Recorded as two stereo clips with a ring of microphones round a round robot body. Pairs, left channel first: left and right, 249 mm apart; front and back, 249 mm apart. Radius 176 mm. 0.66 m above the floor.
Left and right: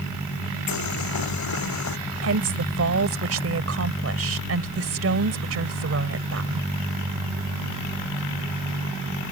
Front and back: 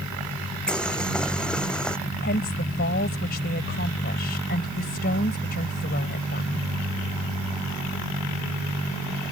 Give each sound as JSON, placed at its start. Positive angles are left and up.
{"t": 0.7, "sound": "boiling", "azimuth_deg": 85}
{"t": 2.2, "sound": "a woman speaking", "azimuth_deg": -65}